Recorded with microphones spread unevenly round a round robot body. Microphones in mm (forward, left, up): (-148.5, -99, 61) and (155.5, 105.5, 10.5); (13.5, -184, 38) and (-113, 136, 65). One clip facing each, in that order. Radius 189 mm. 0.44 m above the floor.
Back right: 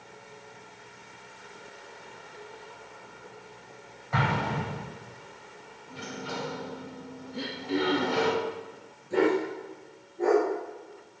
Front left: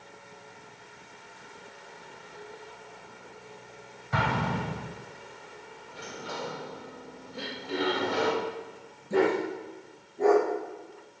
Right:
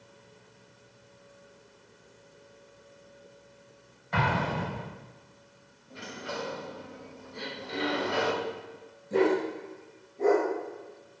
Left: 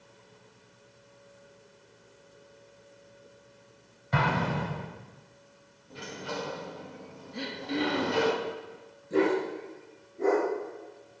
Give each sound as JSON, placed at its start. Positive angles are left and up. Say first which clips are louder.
{"t": 4.1, "sound": "an explosion", "louder": "even, left 1 dB", "azimuth_deg": 100, "distance_m": 4.5}
{"t": 5.9, "sound": "a sliding door", "louder": "back right 3 dB, left 1 dB", "azimuth_deg": 160, "distance_m": 1.5}
{"t": 7.3, "sound": "throat clearing", "louder": "back right 3 dB, left 5 dB", "azimuth_deg": 130, "distance_m": 3.0}
{"t": 9.1, "sound": "a dog barking", "louder": "back right 1 dB, right 1 dB", "azimuth_deg": 35, "distance_m": 4.0}